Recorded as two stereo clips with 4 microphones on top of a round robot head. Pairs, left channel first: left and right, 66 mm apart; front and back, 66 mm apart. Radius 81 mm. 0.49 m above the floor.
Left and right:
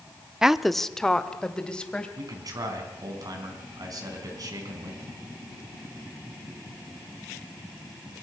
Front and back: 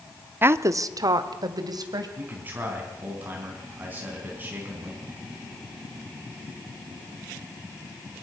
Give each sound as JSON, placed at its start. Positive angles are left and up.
{"t": 0.4, "sound": "a woman speaking", "azimuth_deg": -165, "distance_m": 0.7}
{"t": 2.2, "sound": "a man speaking", "azimuth_deg": -115, "distance_m": 4.5}